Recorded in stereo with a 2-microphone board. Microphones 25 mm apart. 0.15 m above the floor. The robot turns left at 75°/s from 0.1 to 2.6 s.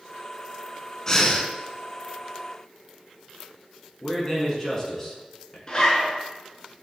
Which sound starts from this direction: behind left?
Breathing, at 1.1 s.